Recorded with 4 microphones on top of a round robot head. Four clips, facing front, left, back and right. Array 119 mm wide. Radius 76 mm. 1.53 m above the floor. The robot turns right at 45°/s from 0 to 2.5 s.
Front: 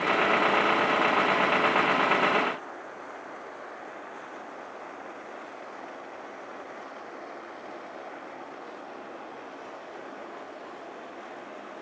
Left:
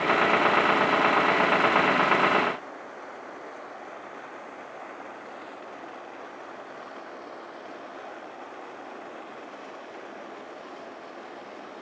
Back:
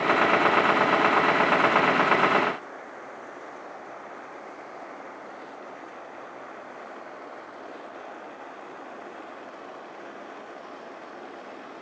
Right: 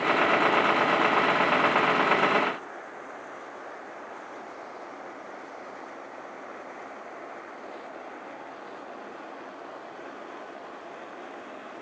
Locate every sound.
Only background noise.